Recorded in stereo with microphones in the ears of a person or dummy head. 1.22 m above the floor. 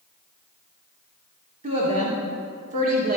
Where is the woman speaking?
30° right (ahead or behind), 3 m; by 3.2 s 40° right (ahead or behind), 2.5 m.